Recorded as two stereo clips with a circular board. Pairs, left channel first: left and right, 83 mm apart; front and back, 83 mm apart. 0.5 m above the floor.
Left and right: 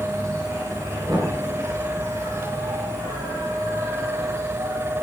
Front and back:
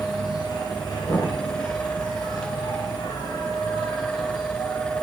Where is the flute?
No flute in this recording.